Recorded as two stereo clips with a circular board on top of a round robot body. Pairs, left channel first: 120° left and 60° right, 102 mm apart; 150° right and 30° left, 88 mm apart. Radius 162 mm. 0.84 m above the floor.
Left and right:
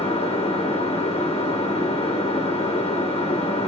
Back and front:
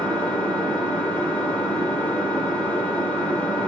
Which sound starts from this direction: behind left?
An engine running, at 0.0 s.